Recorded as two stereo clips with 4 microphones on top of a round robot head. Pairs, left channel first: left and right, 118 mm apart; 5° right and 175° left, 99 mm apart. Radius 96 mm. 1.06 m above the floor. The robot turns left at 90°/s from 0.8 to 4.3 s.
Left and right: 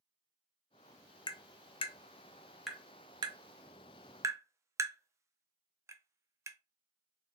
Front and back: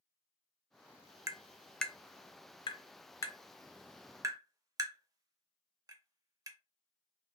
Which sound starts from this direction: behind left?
Tapping, at 1.3 s.